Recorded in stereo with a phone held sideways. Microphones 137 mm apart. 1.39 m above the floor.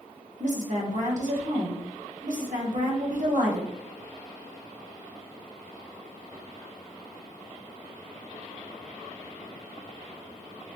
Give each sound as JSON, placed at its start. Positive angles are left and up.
{"t": 0.4, "sound": "a woman speaking", "side_deg": -60, "distance_m": 0.9}